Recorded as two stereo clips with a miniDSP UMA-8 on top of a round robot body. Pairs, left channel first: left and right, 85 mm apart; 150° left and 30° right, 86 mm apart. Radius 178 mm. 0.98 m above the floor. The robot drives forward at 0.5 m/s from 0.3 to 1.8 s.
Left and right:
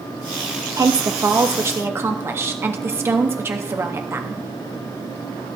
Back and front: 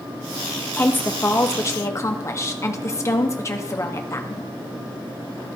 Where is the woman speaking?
140° right, 1.2 m; by 4.4 s 150° right, 1.6 m.